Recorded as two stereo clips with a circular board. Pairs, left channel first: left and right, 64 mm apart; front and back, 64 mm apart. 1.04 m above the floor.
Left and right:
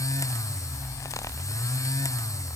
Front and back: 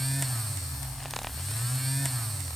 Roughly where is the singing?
No singing in this recording.